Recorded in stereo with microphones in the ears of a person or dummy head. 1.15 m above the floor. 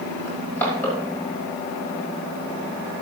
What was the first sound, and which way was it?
Crushing, 10° left (ahead or behind).